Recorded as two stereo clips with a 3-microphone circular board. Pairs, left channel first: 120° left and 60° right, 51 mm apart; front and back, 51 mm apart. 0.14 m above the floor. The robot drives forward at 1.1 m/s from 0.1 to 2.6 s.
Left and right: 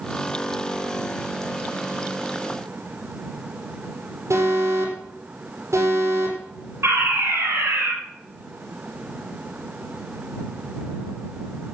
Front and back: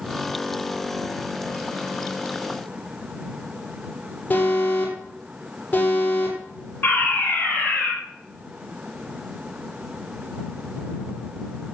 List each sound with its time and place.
4.3 s an alarm: 55° right, 7.5 m
6.8 s a fire alarm: 45° right, 6 m